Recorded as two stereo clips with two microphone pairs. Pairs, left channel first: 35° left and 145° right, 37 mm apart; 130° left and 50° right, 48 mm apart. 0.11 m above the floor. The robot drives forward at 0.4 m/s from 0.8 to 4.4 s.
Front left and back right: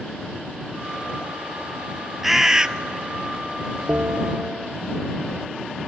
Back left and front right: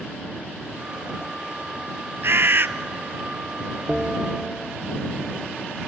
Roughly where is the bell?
Behind right.